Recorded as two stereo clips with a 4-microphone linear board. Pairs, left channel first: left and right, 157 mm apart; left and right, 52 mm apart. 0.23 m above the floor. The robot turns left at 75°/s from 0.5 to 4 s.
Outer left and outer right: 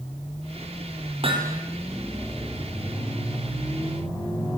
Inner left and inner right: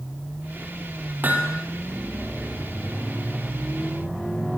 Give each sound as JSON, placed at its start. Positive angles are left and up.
{"t": 1.2, "sound": "hammering", "side_deg": -40, "distance_m": 5.5}